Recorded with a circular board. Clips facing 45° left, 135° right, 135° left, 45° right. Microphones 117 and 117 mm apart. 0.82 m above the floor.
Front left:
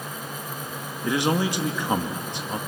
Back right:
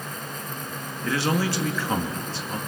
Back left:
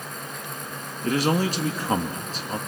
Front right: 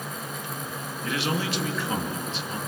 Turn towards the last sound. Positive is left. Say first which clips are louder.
# front left 1 dB, back left 6 dB
turn(degrees=110)